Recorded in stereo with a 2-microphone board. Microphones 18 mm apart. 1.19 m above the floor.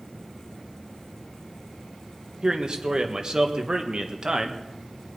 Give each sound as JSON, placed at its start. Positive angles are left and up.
{"t": 2.4, "sound": "a man speaking", "side_deg": -40, "distance_m": 1.5}